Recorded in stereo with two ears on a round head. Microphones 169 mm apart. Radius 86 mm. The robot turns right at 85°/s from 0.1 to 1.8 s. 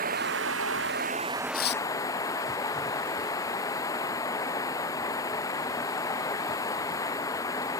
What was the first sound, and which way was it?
Running water, 125° right.